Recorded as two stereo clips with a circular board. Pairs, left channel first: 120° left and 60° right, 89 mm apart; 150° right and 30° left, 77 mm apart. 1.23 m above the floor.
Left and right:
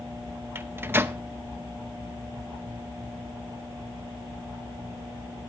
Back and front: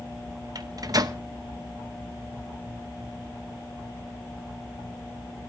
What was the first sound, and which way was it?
A microwave, straight ahead.